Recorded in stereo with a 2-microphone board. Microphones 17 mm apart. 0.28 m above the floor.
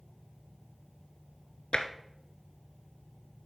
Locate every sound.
1.7 s tapping: 70° left (ahead or behind), 0.7 m